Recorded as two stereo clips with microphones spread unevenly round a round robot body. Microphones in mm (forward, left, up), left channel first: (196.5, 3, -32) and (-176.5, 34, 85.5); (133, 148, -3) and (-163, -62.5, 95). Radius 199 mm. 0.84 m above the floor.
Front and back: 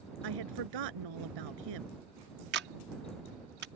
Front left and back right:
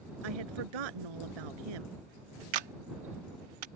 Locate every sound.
0.2 s a woman speaking: 155° right
2.5 s a camera shutter: 115° right